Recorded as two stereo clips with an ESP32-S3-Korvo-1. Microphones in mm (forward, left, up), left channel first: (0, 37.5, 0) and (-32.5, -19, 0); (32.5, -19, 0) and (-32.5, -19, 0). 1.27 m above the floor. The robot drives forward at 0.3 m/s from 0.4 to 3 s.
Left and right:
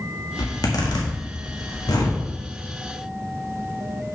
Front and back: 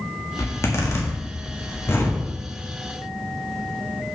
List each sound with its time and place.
0.4 s a zipper: 40° left, 2 m; by 2.2 s 50° left, 1.6 m